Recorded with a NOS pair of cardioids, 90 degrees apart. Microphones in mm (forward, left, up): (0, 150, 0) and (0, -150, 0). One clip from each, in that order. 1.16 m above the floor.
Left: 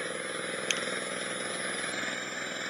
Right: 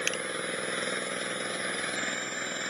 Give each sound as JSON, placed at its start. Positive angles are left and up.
{"t": 0.0, "sound": "an engine running", "azimuth_deg": -10}